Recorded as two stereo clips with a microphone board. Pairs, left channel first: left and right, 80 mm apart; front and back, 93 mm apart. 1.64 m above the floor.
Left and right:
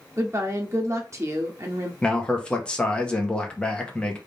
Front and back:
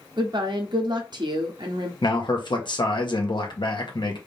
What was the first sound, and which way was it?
A woman speaking, 140° right.